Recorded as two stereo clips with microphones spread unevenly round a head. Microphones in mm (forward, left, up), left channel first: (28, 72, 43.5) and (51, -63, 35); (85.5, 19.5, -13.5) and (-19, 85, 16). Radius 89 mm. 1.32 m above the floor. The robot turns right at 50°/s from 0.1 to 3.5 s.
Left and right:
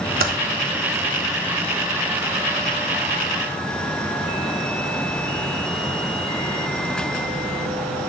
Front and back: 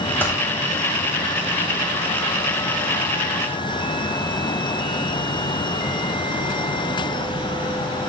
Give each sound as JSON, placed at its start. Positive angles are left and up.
{"t": 0.2, "sound": "typing on a keyboard", "azimuth_deg": -115, "distance_m": 0.7}